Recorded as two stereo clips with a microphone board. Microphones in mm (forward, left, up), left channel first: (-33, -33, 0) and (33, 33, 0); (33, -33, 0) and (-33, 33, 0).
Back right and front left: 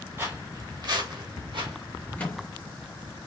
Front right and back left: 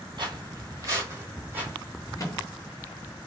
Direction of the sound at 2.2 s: 65° right.